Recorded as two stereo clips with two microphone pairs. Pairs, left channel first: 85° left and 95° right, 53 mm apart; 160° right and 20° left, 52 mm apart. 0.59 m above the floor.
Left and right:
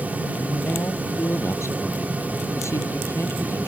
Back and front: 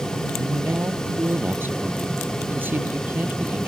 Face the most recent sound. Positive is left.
turn(degrees=70)